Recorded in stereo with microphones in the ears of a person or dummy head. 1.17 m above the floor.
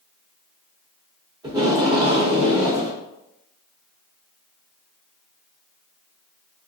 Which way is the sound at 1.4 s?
20° right (ahead or behind).